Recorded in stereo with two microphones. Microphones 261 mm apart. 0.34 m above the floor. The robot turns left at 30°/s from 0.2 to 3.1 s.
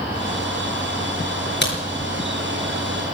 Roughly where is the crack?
Left.